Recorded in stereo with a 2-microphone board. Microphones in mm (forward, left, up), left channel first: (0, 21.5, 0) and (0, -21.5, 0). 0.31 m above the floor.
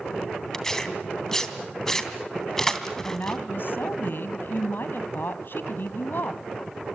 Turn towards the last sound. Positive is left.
turn(degrees=60)  # may be behind; listen again after turning